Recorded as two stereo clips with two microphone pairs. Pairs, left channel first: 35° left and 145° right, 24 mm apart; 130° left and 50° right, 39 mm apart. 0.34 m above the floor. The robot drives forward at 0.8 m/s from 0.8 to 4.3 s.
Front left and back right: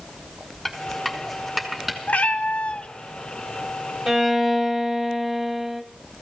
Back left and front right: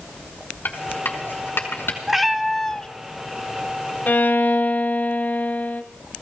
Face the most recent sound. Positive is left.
turn(degrees=160)